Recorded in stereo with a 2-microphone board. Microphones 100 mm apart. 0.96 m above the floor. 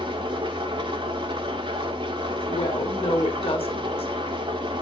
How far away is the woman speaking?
About 1.9 m.